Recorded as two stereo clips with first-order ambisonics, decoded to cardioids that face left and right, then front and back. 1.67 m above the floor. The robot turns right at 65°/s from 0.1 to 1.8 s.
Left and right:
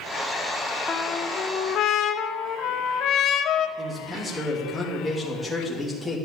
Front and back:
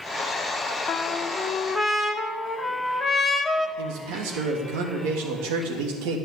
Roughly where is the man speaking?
Behind.